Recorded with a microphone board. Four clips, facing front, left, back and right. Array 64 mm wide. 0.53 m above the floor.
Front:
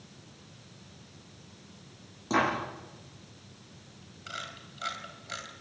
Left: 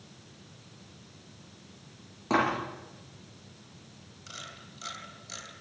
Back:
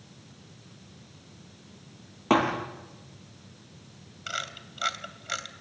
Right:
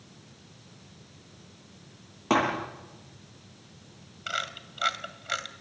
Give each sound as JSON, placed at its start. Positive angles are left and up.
{"t": 2.3, "sound": "a thud", "azimuth_deg": -155, "distance_m": 8.0}
{"t": 4.3, "sound": "a camera shutter", "azimuth_deg": -115, "distance_m": 2.5}